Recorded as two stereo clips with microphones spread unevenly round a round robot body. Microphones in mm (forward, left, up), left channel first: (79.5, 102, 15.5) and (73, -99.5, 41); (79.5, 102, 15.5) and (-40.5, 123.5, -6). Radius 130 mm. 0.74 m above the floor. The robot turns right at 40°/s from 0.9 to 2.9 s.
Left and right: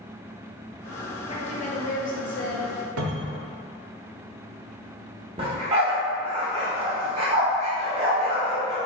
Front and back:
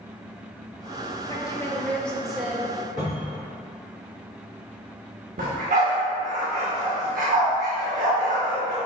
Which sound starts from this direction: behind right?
A dog barking, at 5.4 s.